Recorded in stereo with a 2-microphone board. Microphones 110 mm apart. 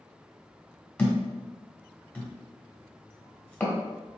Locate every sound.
1.0 s a thud: 15° left (ahead or behind), 1.5 m